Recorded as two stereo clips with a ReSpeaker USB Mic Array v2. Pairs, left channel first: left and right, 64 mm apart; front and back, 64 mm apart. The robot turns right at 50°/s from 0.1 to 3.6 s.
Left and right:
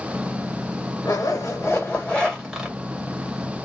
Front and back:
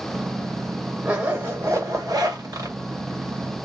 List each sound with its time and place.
1.1 s a zipper: 110° left, 1.9 m; by 2.8 s 165° right, 1.9 m